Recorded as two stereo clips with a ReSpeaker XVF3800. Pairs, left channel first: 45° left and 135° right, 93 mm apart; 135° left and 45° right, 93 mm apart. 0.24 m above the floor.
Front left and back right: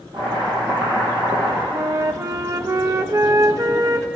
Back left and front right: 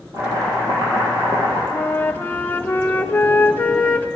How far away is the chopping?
About 5 m.